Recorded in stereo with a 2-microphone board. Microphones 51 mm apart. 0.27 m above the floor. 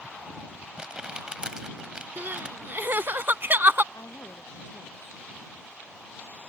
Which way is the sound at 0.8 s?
20° right (ahead or behind).